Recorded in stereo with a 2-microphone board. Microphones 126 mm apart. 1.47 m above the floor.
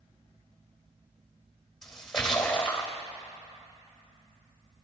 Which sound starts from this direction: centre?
A splash, at 1.8 s.